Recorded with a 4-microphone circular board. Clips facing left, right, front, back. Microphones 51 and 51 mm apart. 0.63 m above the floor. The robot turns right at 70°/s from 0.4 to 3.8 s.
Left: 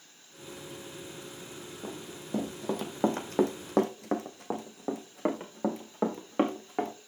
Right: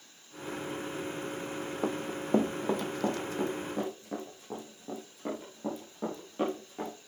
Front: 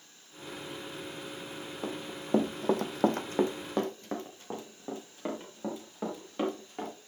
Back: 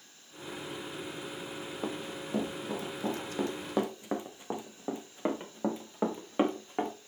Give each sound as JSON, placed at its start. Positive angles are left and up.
{"t": 1.8, "sound": "running footsteps", "azimuth_deg": -100, "distance_m": 1.7}